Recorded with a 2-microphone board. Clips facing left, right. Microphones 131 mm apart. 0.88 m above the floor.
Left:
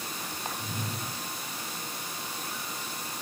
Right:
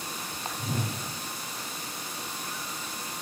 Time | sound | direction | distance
0.6 | a whoosh | 70° right (ahead or behind) | 0.6 m